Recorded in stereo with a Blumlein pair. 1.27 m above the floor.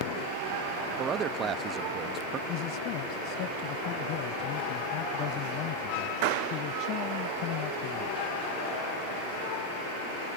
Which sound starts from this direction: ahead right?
A man speaking, at 1.0 s.